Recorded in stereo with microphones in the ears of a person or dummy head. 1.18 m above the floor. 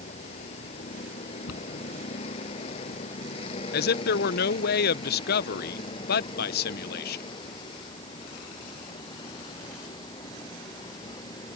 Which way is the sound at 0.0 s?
35° left (ahead or behind).